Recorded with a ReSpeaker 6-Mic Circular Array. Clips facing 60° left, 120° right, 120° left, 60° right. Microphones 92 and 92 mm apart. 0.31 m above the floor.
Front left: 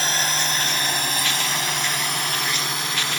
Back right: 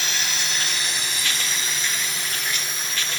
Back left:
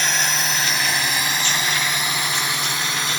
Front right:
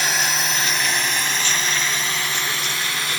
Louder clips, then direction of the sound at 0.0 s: Front left 5 dB, even; 25° left.